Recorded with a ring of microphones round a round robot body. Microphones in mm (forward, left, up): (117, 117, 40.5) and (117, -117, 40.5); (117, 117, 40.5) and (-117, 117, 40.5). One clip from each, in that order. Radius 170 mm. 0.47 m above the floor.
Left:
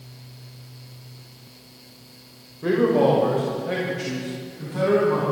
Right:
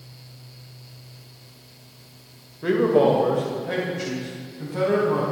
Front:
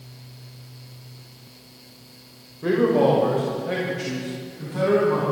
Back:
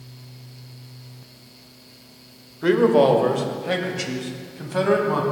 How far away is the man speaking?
About 1.7 m.